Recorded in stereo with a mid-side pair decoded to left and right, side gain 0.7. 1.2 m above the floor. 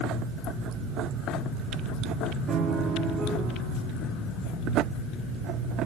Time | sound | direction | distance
2.5 | a piano | 40° right | 3 m